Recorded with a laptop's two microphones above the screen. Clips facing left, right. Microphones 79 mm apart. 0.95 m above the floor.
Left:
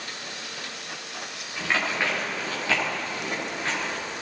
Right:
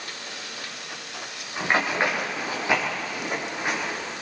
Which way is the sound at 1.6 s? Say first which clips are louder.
Right 3 dB; 35° right (ahead or behind).